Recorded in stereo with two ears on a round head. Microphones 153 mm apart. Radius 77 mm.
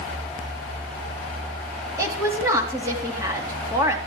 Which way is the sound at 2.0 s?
20° right (ahead or behind).